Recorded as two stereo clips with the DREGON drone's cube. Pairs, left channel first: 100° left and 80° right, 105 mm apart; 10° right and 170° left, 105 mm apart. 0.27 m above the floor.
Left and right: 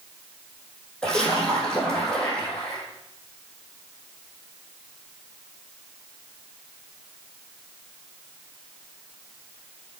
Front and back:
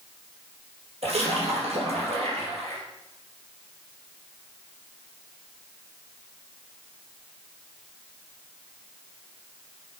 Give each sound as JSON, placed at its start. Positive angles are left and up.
{"t": 1.0, "sound": "a splash", "azimuth_deg": -175, "distance_m": 4.5}